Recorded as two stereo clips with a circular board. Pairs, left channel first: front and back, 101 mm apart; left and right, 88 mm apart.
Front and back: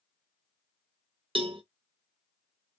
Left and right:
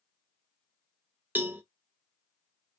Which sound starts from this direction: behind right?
A cowbell, at 1.4 s.